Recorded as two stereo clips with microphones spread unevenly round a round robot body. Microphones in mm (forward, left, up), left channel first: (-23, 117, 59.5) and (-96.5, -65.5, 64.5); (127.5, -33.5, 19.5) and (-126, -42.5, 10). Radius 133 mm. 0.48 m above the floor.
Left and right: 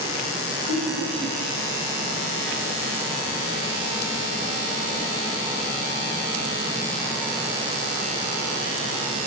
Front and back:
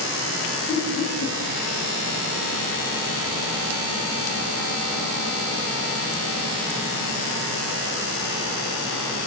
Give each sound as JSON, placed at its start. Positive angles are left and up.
{"t": 0.7, "sound": "laughter", "azimuth_deg": -55, "distance_m": 8.0}